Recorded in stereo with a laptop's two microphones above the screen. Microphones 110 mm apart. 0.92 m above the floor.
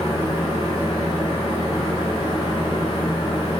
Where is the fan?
50° left (ahead or behind), 4.5 m.